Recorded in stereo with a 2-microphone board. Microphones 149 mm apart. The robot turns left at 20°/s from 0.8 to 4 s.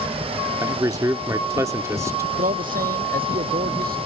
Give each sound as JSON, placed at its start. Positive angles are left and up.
{"t": 0.6, "sound": "a man speaking", "side_deg": -20}
{"t": 2.4, "sound": "a man speaking", "azimuth_deg": -65}